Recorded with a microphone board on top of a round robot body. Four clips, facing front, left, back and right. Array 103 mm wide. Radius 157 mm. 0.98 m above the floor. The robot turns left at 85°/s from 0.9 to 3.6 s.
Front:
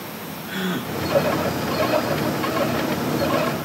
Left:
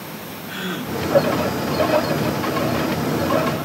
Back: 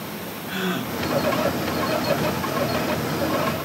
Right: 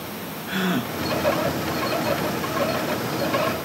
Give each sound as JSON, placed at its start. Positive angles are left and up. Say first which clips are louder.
{"t": 0.5, "sound": "a gasp", "louder": "right 3 dB, even", "azimuth_deg": -95, "distance_m": 0.9}